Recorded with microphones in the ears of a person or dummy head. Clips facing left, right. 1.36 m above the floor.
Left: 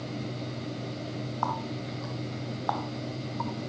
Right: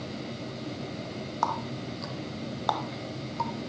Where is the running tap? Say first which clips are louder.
Right 2 dB; 55° right (ahead or behind), 1.1 m.